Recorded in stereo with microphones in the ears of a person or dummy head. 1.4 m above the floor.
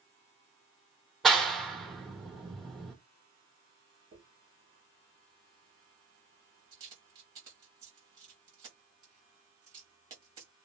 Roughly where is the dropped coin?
Right.